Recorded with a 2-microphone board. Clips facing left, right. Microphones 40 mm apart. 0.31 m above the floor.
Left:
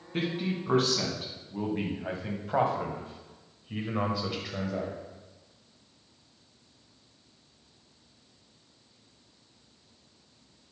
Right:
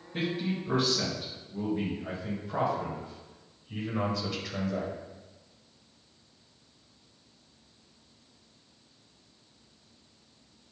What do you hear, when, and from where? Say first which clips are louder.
0.1 s a man speaking: even; 45° left (ahead or behind), 2.5 m; by 4.9 s centre (ahead or behind), 1.3 m